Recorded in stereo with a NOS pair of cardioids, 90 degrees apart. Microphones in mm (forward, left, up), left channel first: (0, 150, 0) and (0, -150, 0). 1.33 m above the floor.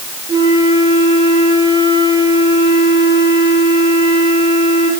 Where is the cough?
I don't hear a cough.